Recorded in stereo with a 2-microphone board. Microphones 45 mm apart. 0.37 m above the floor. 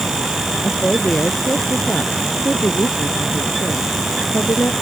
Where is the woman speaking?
25° left (ahead or behind); by 4.7 s 80° left.